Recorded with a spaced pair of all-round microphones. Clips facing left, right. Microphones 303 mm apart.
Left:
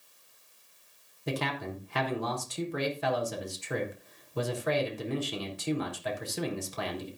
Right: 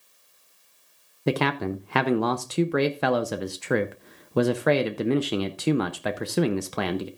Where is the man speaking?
70° right (ahead or behind), 0.7 m.